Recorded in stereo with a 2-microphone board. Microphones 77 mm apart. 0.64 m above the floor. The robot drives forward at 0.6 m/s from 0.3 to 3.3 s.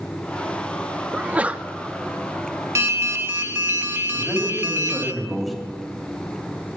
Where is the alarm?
35° right (ahead or behind), 0.6 m; by 5.1 s 30° right (ahead or behind), 0.7 m.